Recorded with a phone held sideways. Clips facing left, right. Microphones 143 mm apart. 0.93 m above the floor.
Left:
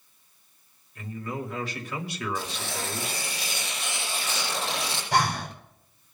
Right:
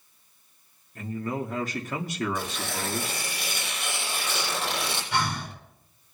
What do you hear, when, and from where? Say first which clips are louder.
0.9 s a man speaking: right 3 dB; 40° right (ahead or behind), 2.5 m
2.4 s tearing paper: right 1 dB; 55° right (ahead or behind), 9.5 m
5.1 s breathing: left 5 dB; 40° left (ahead or behind), 4 m